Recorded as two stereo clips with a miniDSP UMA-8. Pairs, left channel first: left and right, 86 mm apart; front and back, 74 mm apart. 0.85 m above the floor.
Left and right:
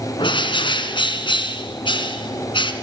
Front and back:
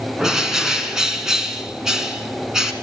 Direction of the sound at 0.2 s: 95° left.